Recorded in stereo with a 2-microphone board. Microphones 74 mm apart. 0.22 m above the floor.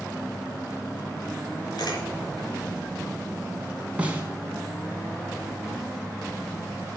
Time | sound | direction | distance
1.8 | a camera shutter | 65° left (ahead or behind) | 4 m
4.0 | a snare drum | 15° right (ahead or behind) | 2.5 m